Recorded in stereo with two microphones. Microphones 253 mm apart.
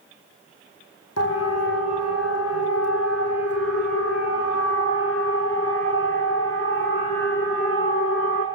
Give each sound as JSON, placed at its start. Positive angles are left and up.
{"t": 1.2, "sound": "a siren", "side_deg": 75, "distance_m": 4.5}